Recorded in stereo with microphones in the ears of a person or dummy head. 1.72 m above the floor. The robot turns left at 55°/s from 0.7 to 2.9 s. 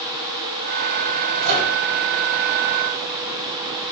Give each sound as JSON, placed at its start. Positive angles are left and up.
{"t": 1.4, "sound": "a microwave", "side_deg": -60, "distance_m": 2.5}